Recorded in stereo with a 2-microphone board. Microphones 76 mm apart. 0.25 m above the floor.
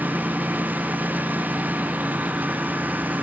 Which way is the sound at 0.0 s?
20° right (ahead or behind).